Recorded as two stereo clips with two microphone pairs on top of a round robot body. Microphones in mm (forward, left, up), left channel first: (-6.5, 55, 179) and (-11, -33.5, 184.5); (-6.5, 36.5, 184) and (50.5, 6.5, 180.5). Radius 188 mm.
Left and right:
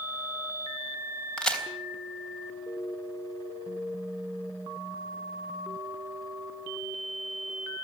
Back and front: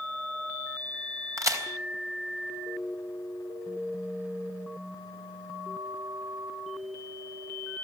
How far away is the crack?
About 4 m.